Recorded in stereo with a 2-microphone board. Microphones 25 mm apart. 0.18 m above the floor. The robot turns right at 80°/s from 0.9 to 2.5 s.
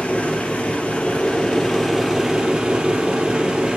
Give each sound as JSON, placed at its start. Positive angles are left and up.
{"t": 0.0, "sound": "an engine running", "azimuth_deg": 95, "distance_m": 4.0}